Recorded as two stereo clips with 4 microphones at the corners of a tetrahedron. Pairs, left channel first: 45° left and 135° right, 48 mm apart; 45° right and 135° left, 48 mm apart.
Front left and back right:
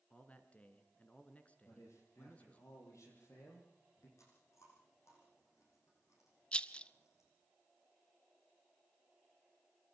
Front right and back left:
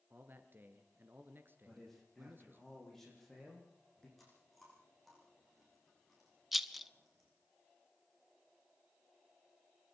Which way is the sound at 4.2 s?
40° left.